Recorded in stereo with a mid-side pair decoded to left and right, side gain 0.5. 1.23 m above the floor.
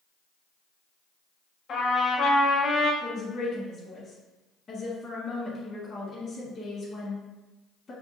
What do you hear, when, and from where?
1.7 s a trumpet: 55° left, 1.5 m
3.0 s a woman speaking: 35° left, 1.3 m